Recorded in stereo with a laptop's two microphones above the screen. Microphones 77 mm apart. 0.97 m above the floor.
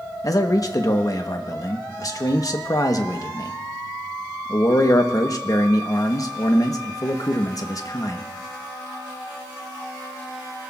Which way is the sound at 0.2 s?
50° left (ahead or behind).